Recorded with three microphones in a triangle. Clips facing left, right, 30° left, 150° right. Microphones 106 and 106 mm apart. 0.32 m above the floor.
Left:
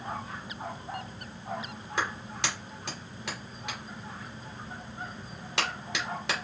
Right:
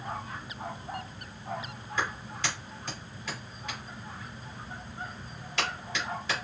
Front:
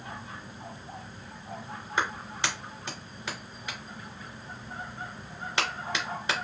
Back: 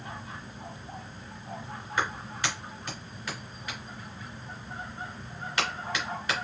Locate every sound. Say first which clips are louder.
2.0 s a clap: even, even; 95° left, 2.5 m